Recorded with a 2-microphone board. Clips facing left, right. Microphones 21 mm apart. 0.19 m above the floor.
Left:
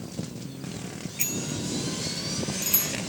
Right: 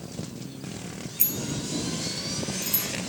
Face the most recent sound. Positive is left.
turn(degrees=50)  # may be behind; listen again after turning